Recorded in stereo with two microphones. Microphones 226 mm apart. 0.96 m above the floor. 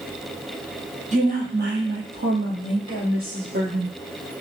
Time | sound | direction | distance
1.1 | a woman speaking | 30° right (ahead or behind) | 0.8 m